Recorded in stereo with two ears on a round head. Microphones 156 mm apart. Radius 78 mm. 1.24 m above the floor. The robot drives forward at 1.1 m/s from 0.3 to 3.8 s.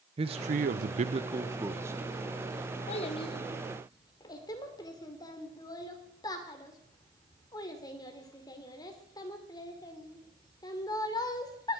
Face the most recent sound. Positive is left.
turn(degrees=20)  # may be behind; listen again after turning